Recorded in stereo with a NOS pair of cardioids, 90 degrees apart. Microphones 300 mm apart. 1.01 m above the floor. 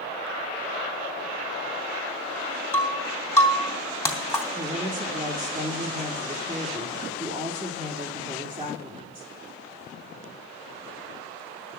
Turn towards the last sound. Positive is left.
turn(degrees=-15)